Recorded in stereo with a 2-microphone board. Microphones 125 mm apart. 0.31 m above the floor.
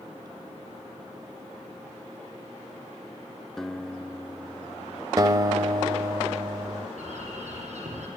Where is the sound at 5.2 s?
30° right (ahead or behind), 1.0 m.